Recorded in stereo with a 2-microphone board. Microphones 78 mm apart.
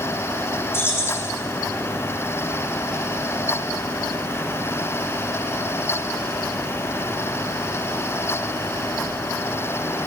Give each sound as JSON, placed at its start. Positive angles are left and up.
{"t": 0.7, "sound": "keys jangling", "side_deg": 30, "distance_m": 3.0}